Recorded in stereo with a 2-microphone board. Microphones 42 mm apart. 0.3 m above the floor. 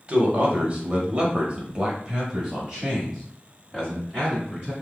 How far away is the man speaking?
About 1.2 m.